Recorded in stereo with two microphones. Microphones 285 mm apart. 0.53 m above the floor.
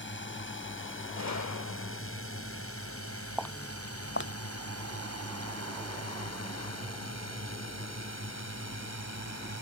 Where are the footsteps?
Centre (ahead or behind); by 8.5 s 45° left (ahead or behind).